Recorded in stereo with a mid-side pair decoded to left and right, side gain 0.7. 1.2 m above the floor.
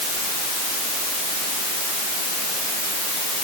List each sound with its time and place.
Only background noise.